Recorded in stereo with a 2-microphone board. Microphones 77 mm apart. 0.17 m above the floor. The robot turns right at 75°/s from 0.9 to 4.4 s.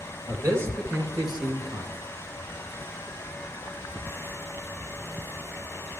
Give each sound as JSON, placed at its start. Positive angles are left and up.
{"t": 0.3, "sound": "a man speaking", "azimuth_deg": -135, "distance_m": 4.0}